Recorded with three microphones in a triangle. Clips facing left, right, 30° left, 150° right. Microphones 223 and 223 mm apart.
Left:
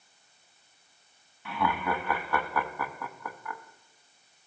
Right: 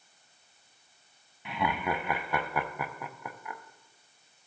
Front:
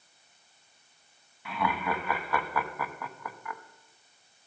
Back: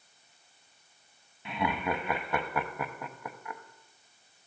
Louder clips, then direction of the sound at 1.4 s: Left 1 dB, even; 130° right.